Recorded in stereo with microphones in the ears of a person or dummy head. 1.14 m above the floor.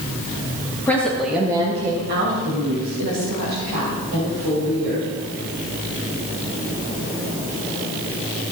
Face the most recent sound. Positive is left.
turn(degrees=-75)  # may be behind; listen again after turning